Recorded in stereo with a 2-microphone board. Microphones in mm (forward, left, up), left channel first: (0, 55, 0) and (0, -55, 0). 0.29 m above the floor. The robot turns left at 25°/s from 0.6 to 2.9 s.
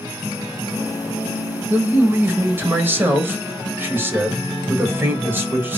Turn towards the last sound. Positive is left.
turn(degrees=-20)  # may be behind; listen again after turning